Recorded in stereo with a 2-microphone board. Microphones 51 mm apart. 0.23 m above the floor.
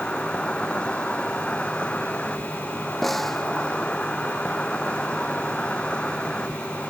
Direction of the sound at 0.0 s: 15° left (ahead or behind).